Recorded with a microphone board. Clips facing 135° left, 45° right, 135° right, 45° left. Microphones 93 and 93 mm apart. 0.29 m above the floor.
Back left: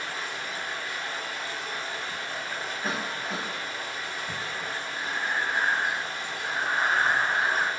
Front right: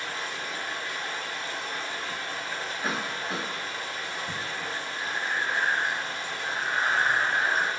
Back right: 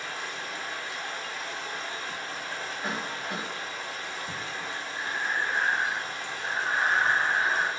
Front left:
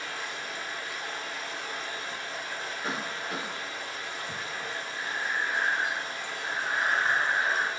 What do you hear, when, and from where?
0.0 s running water: 90° right, 1.6 m
2.8 s a cough: 130° right, 1.3 m
5.0 s breathing: 165° left, 0.5 m